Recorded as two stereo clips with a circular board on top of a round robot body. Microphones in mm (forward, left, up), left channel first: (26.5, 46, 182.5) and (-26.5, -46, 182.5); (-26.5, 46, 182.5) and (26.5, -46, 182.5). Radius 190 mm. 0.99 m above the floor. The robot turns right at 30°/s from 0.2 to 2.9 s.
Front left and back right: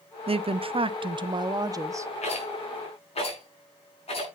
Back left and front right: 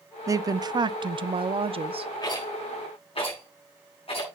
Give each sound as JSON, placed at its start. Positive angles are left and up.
{"t": 0.3, "sound": "a woman speaking", "azimuth_deg": -115, "distance_m": 0.8}
{"t": 2.2, "sound": "a rattle", "azimuth_deg": 65, "distance_m": 6.5}